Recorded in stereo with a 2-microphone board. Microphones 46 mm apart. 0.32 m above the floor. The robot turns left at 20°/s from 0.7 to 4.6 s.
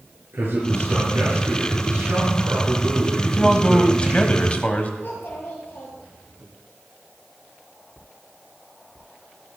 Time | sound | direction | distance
0.3 | a man speaking | 70° right | 5 m
3.2 | a man speaking | 15° left (ahead or behind) | 1.5 m
5.0 | a child speaking | 50° left (ahead or behind) | 4 m